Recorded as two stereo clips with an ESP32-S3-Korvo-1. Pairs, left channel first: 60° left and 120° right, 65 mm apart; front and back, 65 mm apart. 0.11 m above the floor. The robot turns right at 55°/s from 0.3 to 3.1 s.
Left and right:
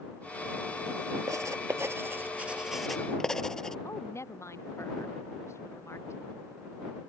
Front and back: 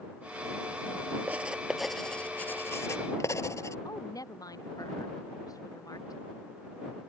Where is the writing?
120° right; by 3.8 s 20° right.